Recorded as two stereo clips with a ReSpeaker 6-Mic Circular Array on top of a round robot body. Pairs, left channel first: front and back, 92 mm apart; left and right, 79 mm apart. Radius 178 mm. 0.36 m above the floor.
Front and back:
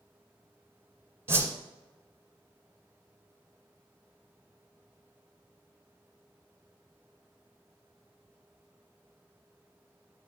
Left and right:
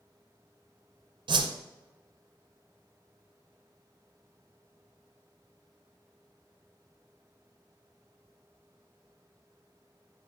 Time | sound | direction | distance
1.3 | a whoosh | 115° right | 0.7 m